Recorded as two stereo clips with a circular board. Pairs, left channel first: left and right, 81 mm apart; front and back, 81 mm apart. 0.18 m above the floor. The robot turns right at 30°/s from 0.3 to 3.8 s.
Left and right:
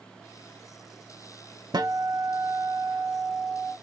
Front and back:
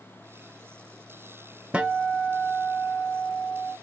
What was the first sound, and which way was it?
A guitar, 105° right.